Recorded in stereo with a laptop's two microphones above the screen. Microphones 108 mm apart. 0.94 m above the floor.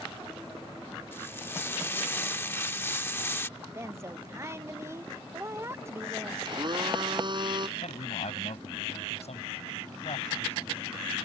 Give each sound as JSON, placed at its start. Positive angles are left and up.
{"t": 1.1, "sound": "frying", "side_deg": 20}
{"t": 3.6, "sound": "a woman speaking", "side_deg": -25}
{"t": 6.5, "sound": "a blender", "side_deg": -50}
{"t": 7.8, "sound": "a man speaking", "side_deg": 80}